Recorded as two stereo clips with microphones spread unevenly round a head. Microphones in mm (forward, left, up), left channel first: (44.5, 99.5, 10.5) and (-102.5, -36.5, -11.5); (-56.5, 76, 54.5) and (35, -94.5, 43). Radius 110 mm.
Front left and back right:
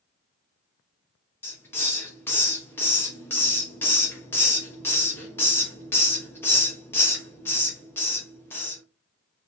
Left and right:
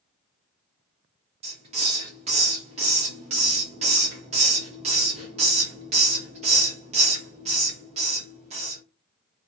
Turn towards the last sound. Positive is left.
turn(degrees=-15)